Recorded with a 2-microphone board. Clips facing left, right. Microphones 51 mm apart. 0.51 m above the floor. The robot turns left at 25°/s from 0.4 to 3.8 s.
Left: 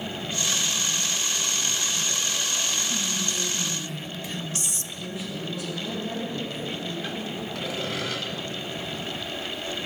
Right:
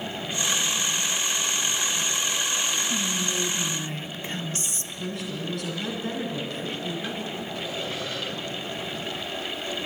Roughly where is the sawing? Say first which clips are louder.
Left 3 dB; left.